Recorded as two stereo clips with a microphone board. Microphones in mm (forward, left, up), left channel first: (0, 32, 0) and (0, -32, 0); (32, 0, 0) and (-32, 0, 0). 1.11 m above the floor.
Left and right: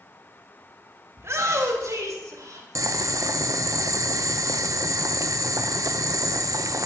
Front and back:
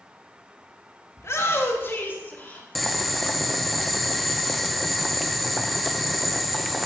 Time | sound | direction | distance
1.2 | a shout | 45° right | 1.1 m
2.8 | boiling | 90° right | 0.6 m